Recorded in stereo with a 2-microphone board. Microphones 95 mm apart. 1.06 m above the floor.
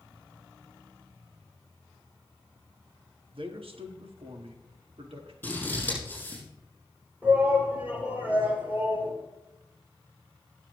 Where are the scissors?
20° left (ahead or behind), 6 m.